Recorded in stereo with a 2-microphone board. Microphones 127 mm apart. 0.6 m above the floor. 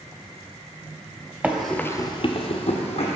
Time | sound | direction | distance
1.4 | running footsteps | 15° right (ahead or behind) | 0.9 m